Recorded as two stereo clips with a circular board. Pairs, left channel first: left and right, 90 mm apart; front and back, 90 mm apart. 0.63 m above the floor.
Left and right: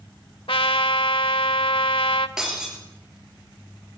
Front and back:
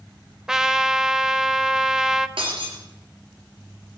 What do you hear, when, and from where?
0.5 s a trumpet: 95° left, 1.1 m
2.4 s breaking glass: 170° right, 6 m